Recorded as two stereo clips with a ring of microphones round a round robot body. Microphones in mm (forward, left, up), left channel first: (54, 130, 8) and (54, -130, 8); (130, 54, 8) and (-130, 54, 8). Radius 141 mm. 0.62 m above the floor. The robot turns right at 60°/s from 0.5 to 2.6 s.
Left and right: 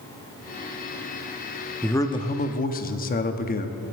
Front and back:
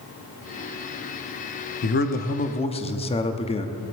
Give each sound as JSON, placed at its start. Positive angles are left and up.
{"t": 1.8, "sound": "a man speaking", "azimuth_deg": 10, "distance_m": 0.6}